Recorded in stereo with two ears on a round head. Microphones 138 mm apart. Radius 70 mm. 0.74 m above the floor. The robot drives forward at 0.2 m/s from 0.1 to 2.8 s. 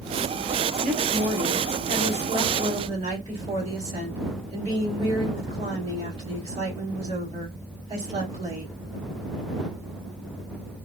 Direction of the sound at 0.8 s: 50° right (ahead or behind).